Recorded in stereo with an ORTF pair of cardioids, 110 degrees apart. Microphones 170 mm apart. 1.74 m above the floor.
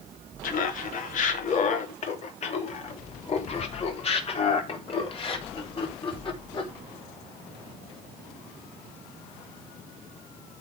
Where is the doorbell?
No doorbell in this recording.